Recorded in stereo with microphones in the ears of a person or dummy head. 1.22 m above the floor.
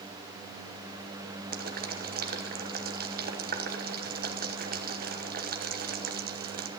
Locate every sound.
1.5 s boiling: 50° right (ahead or behind), 1.1 m